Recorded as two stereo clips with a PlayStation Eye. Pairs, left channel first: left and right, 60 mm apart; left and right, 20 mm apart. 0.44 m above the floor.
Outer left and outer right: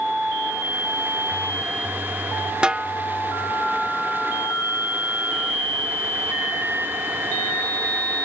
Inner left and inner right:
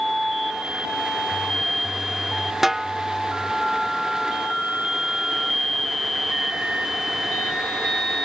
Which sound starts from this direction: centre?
A snare drum, at 2.6 s.